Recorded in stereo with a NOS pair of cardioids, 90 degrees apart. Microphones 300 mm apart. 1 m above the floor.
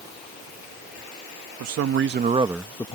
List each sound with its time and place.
1.6 s a man speaking: 60° right; by 2.9 s 20° left